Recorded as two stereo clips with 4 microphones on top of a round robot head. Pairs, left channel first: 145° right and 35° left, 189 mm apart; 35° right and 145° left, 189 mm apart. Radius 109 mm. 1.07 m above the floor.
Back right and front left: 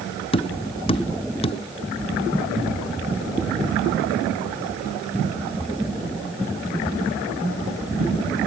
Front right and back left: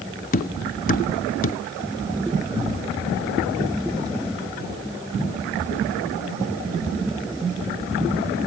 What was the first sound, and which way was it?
Tapping, 80° right.